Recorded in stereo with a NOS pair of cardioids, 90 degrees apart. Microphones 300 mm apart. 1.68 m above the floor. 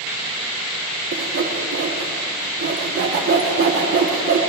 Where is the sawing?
50° right, 2.5 m.